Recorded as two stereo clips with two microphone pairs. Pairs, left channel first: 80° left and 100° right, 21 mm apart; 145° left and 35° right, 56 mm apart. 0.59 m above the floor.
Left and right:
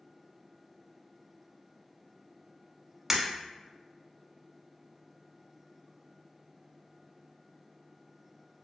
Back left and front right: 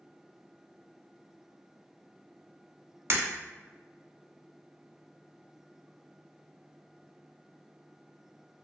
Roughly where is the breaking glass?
Ahead right.